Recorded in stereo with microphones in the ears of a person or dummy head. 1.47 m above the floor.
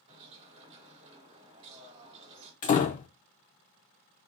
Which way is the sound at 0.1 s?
35° right (ahead or behind).